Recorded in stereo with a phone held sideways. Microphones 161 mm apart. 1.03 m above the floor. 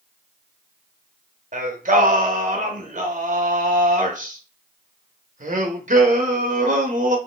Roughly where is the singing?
Right.